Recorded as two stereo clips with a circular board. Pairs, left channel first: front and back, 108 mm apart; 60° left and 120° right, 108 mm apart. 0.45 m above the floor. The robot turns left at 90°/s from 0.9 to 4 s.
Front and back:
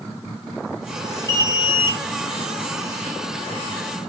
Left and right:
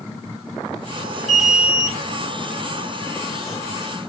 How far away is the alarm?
About 2 m.